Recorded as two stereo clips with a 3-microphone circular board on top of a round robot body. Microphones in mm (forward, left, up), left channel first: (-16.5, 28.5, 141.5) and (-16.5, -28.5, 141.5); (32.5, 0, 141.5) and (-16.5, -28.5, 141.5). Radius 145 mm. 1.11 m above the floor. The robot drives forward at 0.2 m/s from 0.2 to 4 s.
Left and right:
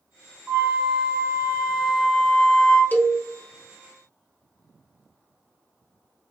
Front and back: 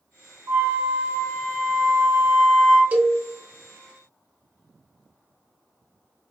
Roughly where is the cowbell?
Behind left.